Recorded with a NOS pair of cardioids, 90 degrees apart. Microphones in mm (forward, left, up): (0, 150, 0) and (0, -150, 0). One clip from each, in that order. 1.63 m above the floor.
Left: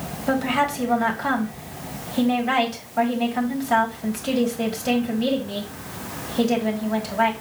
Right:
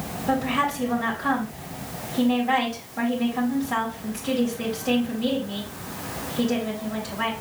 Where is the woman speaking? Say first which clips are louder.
Left 2 dB; 55° left, 3.5 m.